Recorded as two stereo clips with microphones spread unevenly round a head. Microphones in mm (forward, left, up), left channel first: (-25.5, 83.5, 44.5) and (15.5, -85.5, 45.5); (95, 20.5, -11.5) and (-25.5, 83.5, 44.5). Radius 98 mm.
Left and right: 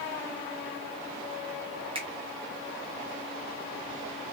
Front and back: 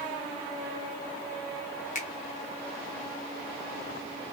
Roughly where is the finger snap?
Ahead.